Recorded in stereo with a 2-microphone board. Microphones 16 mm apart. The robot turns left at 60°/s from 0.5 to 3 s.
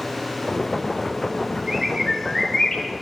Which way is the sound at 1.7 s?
135° right.